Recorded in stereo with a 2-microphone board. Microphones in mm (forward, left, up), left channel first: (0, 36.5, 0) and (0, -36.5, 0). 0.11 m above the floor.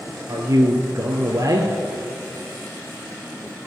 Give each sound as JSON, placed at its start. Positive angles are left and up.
{"t": 0.3, "sound": "a man speaking", "side_deg": -50, "distance_m": 1.9}